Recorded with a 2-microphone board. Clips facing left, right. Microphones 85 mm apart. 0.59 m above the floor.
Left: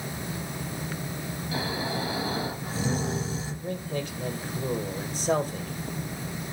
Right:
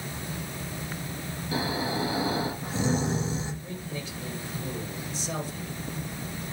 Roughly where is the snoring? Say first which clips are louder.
Right 2 dB; right.